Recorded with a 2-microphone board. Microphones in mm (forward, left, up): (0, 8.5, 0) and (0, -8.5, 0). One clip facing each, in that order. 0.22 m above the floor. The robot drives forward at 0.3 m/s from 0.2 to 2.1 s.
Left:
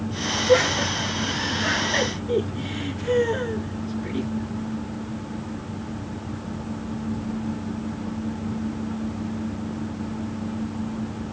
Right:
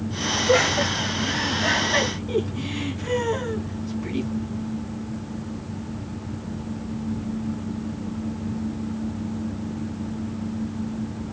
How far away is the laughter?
About 1.9 m.